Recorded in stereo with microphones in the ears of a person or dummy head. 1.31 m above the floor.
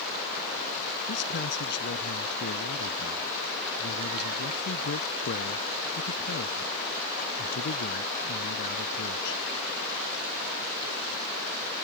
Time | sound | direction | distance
1.1 | a man speaking | 60° left (ahead or behind) | ?